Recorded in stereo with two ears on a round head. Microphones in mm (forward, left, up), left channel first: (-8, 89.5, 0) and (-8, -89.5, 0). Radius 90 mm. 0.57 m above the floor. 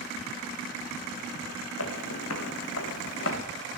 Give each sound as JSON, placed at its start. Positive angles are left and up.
{"t": 1.8, "sound": "footsteps", "side_deg": 80, "distance_m": 2.5}